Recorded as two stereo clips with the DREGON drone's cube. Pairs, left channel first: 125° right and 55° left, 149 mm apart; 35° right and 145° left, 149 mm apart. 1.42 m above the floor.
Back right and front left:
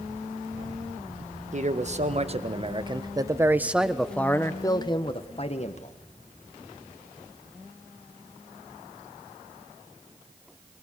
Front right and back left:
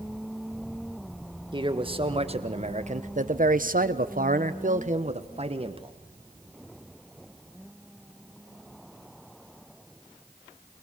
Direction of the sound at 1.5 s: 90° left.